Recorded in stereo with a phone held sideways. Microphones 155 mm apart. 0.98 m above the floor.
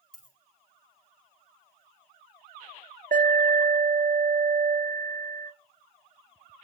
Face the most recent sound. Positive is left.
turn(degrees=-65)  # may be behind; listen again after turning